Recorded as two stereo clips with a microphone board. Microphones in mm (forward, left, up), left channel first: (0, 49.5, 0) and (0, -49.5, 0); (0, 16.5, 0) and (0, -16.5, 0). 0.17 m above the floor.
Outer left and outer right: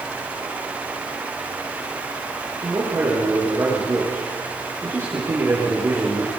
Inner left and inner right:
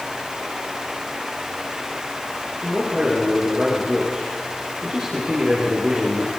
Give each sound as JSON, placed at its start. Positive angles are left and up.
{"t": 2.6, "sound": "a man speaking", "side_deg": -25, "distance_m": 6.5}